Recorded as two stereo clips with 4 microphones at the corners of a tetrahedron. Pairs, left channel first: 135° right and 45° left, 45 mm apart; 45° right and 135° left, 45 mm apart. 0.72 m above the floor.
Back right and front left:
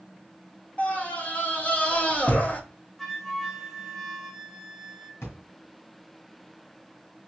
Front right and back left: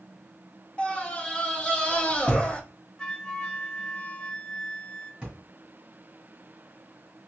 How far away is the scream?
About 1.0 m.